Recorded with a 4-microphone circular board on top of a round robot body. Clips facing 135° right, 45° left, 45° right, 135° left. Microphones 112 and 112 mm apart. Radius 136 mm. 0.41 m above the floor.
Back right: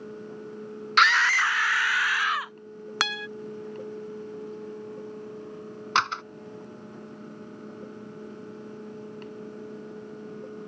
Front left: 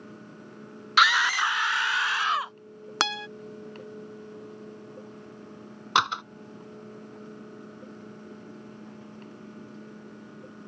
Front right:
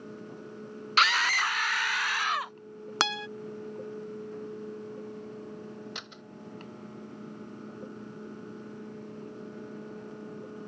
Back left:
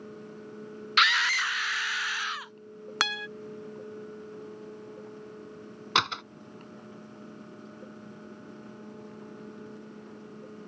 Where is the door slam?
120° left.